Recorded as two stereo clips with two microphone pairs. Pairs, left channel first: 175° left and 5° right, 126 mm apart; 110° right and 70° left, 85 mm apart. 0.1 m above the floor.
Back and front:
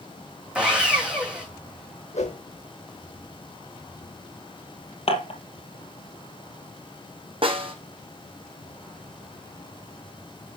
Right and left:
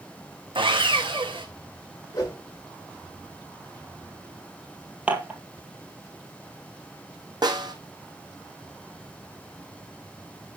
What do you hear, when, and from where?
0.6 s sawing: 75° left, 2.5 m
2.1 s a whoosh: 160° right, 3 m
5.1 s dishes clattering: 145° left, 2 m
7.4 s a snare drum: 40° left, 1.8 m